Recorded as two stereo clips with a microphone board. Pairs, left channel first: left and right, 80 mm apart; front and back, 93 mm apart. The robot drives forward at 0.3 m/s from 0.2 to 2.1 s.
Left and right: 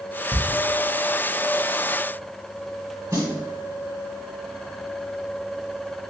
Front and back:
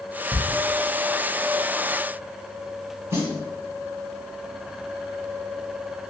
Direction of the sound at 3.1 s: 130° right.